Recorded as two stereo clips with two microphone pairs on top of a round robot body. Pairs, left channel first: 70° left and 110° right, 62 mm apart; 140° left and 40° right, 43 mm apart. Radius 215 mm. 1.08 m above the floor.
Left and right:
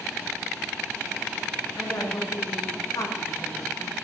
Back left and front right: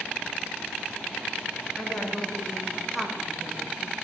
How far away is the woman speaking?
About 1.8 m.